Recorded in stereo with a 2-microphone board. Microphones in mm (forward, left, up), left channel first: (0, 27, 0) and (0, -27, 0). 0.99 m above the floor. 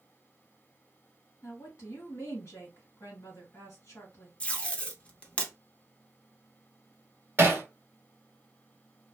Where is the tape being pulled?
20° left (ahead or behind), 0.6 m.